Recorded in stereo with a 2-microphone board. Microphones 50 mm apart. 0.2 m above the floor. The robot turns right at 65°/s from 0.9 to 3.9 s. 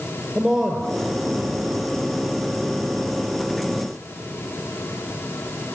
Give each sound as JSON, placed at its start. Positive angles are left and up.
{"t": 0.3, "sound": "a man speaking", "azimuth_deg": -170, "distance_m": 4.0}